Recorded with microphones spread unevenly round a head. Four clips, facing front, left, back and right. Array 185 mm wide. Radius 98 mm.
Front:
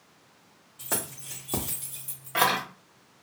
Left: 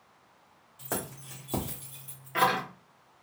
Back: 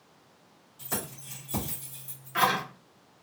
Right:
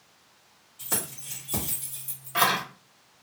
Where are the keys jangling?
35° left, 1.7 m; by 2.6 s 5° right, 1.7 m.